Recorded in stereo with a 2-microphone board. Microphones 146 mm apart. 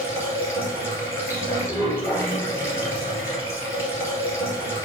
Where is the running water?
20° left (ahead or behind), 2.5 m.